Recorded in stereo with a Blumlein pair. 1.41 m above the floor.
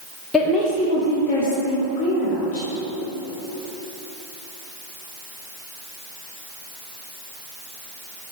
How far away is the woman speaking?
About 0.9 m.